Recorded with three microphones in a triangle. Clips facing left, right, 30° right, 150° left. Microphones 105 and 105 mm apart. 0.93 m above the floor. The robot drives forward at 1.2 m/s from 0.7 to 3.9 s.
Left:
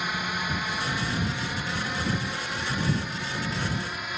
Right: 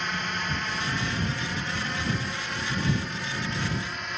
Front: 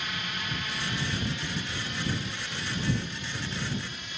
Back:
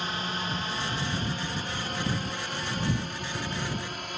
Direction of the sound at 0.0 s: 170° left.